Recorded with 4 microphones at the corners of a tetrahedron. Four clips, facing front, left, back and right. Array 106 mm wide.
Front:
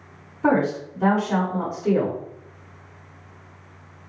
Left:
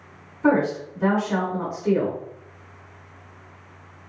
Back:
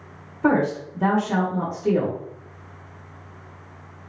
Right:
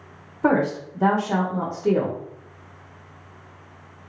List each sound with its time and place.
0.4 s a woman speaking: 80° right, 0.9 m